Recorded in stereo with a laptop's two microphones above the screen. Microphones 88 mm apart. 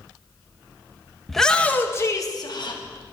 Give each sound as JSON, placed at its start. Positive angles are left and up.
{"t": 1.3, "sound": "a shout", "side_deg": 0, "distance_m": 1.2}